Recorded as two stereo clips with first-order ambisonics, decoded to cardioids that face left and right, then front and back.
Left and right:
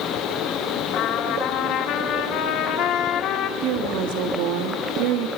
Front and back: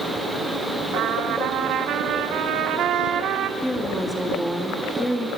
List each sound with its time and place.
0.9 s a trumpet: 135° left, 2 m
3.6 s a woman speaking: 85° right, 3 m